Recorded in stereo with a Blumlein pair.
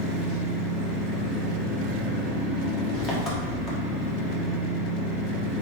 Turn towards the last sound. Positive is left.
turn(degrees=25)